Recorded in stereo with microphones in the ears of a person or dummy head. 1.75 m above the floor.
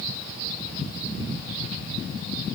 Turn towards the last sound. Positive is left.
No sound to turn to.